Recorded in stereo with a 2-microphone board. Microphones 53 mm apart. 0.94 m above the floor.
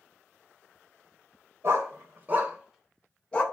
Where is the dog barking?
50° right (ahead or behind), 1.0 m; by 3.4 s 20° left (ahead or behind), 0.9 m.